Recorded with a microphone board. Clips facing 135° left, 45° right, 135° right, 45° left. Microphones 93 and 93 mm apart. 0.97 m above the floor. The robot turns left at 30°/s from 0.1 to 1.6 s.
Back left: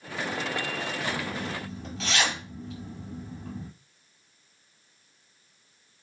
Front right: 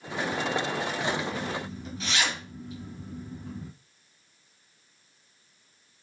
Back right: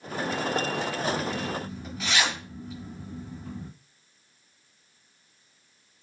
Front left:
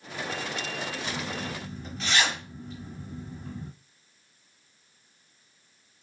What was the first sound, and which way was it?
A zipper, 155° left.